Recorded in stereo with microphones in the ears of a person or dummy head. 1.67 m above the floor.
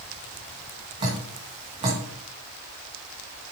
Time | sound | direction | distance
1.0 | dripping | 35° right (ahead or behind) | 2.5 m